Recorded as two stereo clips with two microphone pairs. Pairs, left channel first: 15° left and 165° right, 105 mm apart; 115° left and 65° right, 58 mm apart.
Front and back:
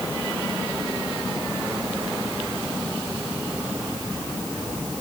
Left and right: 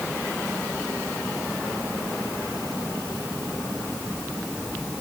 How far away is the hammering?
I don't hear hammering.